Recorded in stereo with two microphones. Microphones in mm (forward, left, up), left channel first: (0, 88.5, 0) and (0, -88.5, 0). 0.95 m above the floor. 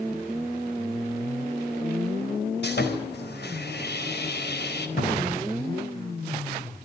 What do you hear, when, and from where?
2.6 s sawing: 80° left, 4.5 m
5.0 s a cupboard door: 75° left (ahead or behind), 6 m